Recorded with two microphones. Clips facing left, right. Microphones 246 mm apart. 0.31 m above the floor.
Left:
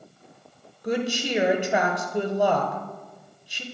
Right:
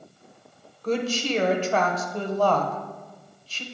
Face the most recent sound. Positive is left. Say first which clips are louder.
# right 1 dB
turn(degrees=15)  # may be behind; listen again after turning